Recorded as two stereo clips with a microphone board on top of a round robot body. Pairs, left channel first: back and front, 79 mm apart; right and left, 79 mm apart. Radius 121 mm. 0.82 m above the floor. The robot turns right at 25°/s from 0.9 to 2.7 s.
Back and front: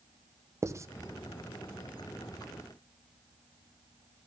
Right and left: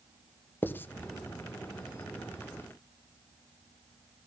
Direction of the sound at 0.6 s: 35° right.